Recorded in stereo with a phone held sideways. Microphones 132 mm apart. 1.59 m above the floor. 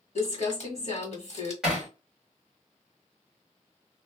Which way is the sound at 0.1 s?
55° left (ahead or behind).